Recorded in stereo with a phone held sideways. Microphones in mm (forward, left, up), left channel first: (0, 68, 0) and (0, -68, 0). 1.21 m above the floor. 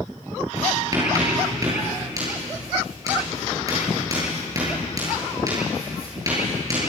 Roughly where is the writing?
Right.